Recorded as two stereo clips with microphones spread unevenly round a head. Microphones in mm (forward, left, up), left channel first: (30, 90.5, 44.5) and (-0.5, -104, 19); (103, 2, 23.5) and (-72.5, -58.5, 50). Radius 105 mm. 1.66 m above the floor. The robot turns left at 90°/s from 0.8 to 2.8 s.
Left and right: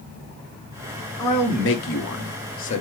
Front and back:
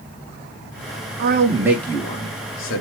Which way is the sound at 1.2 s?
160° left.